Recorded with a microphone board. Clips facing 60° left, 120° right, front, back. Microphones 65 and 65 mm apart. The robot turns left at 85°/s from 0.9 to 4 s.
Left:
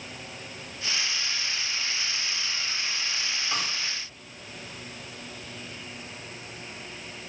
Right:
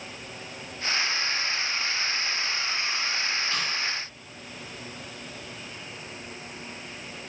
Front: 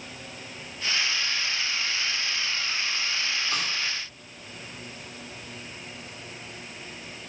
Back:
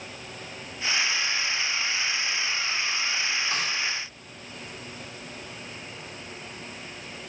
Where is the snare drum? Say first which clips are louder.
Right 1 dB, back 1 dB; 135° left, 5 m; by 3.7 s 115° left, 5 m.